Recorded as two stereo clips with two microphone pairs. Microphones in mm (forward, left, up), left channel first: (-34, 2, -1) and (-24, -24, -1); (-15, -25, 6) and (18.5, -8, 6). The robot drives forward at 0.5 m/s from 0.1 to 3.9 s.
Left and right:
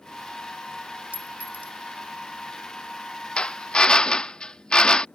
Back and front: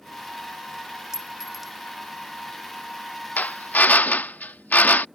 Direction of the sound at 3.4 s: 170° left.